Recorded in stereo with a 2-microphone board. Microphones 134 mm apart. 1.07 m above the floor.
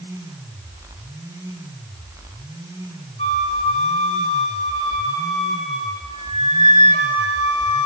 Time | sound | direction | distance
3.2 | a flute | 50° left (ahead or behind) | 3 m